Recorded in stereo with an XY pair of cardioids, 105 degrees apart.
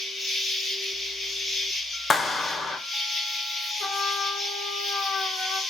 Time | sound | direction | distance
0.0 | an insect | 35° left | 1.1 m
2.1 | a clap | 30° left | 0.6 m
3.8 | a trumpet | 45° left | 0.7 m